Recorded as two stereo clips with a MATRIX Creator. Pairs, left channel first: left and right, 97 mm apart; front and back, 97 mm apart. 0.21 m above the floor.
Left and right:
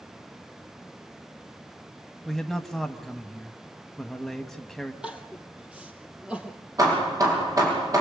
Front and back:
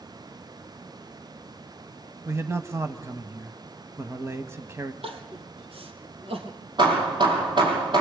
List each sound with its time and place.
2.2 s a man speaking: 175° left, 1.2 m
5.0 s crying: 170° right, 3 m
6.8 s hammering: 140° right, 6.5 m